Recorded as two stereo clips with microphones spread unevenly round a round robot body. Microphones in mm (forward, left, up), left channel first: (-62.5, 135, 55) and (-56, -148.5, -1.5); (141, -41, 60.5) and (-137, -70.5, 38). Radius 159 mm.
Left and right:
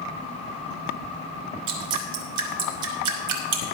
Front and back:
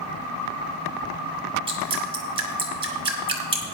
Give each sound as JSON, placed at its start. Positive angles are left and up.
{"t": 1.7, "sound": "dripping", "azimuth_deg": -100, "distance_m": 3.0}